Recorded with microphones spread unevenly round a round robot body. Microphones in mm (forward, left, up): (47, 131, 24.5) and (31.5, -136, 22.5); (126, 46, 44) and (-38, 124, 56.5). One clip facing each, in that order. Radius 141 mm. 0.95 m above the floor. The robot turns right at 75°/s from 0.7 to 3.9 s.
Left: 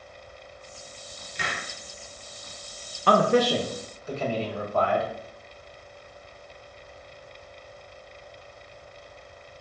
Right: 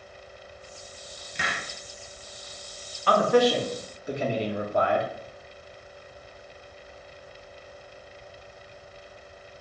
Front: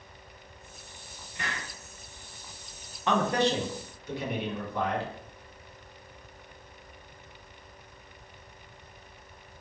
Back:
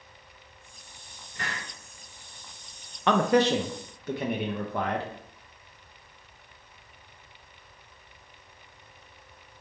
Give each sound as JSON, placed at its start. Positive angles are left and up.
{"t": 1.4, "sound": "a hiss", "azimuth_deg": -105, "distance_m": 0.8}
{"t": 3.1, "sound": "a man speaking", "azimuth_deg": 130, "distance_m": 0.6}